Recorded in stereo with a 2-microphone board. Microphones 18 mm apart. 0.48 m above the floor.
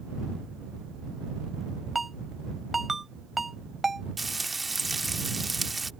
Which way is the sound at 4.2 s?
10° right (ahead or behind).